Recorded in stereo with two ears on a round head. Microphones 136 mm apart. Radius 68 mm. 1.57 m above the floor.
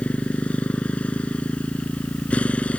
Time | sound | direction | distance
0.0 | a motorcycle | 10° left (ahead or behind) | ?